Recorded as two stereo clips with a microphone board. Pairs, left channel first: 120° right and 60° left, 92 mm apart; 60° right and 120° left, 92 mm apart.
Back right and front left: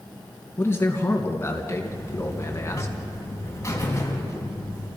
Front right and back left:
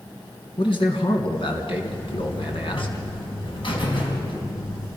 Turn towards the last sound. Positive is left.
turn(degrees=-65)